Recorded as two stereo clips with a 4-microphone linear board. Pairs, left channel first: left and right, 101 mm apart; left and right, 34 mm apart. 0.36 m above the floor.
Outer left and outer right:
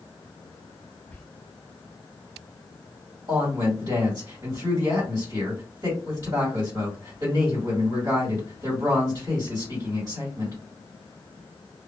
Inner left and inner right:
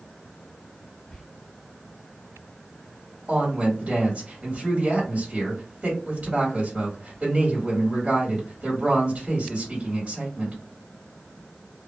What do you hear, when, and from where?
1.1 s whispering: 15° left (ahead or behind), 0.9 m
3.3 s a woman speaking: 35° right (ahead or behind), 1.6 m